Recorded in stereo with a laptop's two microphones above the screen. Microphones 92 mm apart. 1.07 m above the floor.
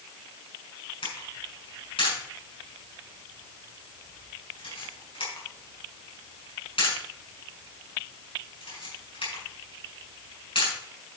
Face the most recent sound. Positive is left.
turn(degrees=75)  # may be behind; listen again after turning